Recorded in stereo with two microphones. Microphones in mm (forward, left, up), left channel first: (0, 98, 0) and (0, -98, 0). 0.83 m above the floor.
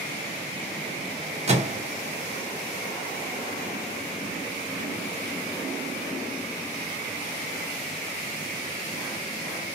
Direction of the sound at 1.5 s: 35° right (ahead or behind).